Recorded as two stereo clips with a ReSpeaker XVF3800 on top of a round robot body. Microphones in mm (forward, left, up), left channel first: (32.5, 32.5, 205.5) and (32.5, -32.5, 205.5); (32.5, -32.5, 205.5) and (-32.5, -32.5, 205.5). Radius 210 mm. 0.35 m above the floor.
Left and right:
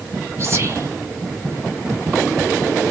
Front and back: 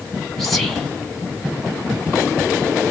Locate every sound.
0.4 s whispering: 85° right, 1.4 m